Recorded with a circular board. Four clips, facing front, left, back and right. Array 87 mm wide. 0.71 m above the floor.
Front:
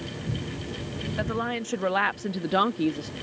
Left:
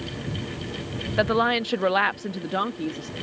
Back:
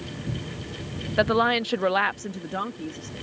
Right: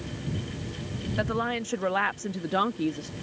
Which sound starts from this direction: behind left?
A woman speaking, at 1.2 s.